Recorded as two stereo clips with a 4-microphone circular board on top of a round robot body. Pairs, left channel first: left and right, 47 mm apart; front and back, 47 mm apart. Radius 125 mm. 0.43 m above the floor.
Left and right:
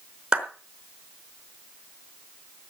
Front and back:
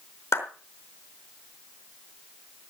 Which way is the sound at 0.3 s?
20° right.